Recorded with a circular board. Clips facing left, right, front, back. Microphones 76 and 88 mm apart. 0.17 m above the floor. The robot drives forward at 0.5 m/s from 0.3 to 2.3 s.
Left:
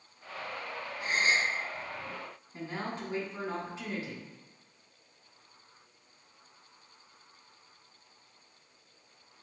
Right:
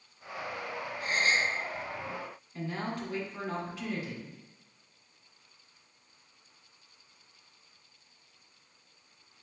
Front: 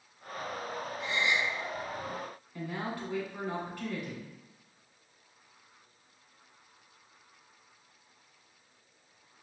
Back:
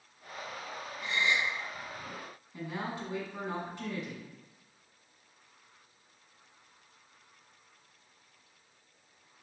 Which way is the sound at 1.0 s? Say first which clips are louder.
Even, even; 55° left.